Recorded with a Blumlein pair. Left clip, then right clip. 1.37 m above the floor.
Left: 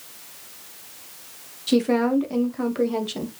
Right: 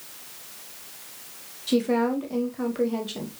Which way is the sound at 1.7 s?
15° left.